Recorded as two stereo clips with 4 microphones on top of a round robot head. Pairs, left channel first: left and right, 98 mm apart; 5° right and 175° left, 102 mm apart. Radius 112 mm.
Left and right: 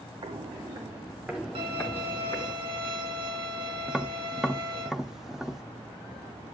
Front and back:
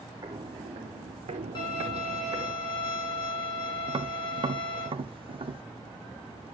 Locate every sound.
0.2 s footsteps: 125° right, 1.4 m; by 2.5 s 140° left, 1.6 m
1.6 s a violin: 55° right, 4 m
3.9 s tapping: 175° right, 1.3 m